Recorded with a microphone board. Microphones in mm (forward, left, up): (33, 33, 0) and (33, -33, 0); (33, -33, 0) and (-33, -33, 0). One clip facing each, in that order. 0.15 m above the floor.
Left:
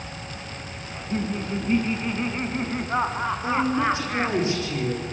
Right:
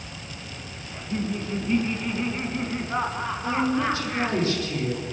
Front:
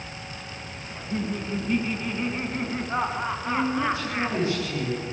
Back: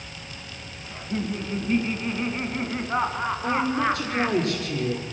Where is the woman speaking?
155° left, 6.5 m.